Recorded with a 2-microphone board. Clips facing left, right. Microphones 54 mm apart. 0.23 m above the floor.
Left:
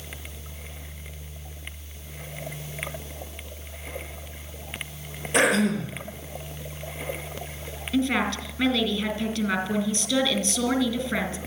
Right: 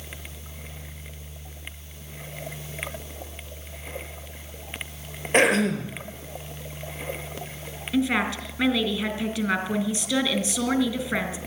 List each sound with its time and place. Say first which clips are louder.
5.3 s throat clearing: right 1 dB; 40° right (ahead or behind), 4 m
7.9 s a woman speaking: even; 15° right (ahead or behind), 3 m